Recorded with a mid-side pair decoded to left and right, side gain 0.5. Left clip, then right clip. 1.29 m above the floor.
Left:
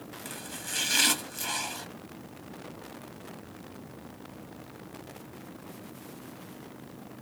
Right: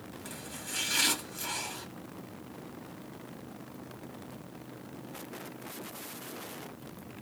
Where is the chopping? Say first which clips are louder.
Left 3 dB; 35° left, 1.4 m.